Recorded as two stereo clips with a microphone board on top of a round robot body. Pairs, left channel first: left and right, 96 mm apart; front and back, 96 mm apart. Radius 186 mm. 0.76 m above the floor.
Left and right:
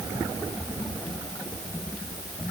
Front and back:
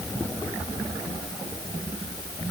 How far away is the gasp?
No gasp in this recording.